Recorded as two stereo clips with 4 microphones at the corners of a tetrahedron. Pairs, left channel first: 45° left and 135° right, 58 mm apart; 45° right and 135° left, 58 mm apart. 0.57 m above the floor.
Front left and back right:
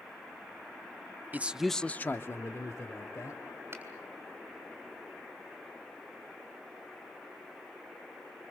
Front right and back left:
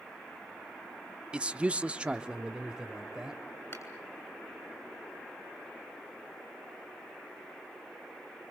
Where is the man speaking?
165° right, 0.7 m; by 3.4 s 55° left, 2.0 m.